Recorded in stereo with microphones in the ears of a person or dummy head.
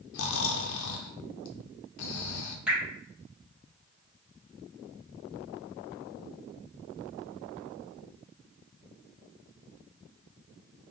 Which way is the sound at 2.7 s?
5° right (ahead or behind).